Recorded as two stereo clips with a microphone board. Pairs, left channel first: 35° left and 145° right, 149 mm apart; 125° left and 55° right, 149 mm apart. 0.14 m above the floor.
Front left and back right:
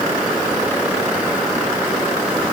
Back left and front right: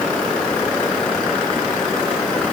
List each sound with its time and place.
Only background noise.